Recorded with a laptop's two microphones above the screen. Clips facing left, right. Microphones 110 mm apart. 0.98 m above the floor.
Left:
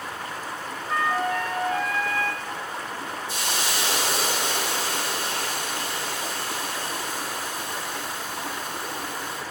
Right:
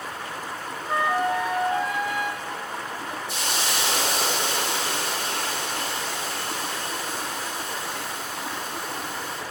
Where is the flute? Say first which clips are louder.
Right 2 dB; 20° right (ahead or behind), 0.7 m.